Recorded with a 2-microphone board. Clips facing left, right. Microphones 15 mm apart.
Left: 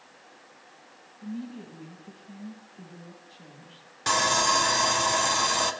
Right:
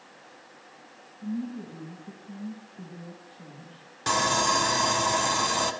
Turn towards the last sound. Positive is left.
turn(degrees=10)  # may be behind; listen again after turning